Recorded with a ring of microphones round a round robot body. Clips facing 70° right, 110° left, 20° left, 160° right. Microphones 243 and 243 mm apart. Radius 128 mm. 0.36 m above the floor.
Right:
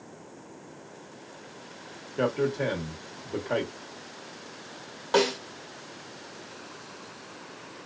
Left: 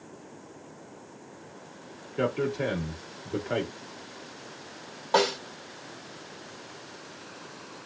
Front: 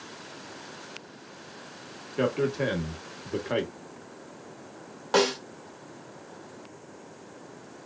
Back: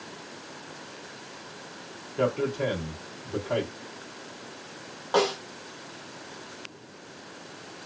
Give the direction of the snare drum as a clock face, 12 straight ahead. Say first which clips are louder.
Right 2 dB, front 1 dB; 12 o'clock.